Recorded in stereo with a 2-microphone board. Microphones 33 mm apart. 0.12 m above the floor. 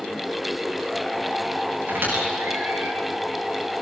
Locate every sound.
1.9 s a squeak: 70° right (ahead or behind), 6.5 m